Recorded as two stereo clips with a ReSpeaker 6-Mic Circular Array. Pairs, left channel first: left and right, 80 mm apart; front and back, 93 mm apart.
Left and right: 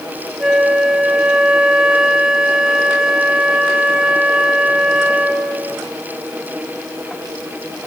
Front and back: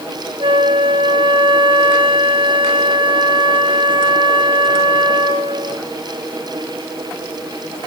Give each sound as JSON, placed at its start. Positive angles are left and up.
{"t": 0.4, "sound": "a flute", "azimuth_deg": -170, "distance_m": 0.9}